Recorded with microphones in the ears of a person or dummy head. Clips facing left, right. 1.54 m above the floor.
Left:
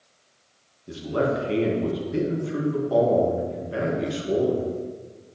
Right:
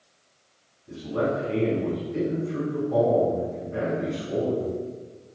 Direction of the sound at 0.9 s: 70° left (ahead or behind).